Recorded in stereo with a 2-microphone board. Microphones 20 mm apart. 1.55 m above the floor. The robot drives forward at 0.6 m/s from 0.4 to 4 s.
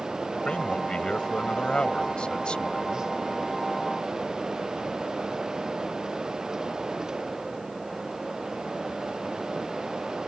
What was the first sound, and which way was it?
A man speaking, 50° left (ahead or behind).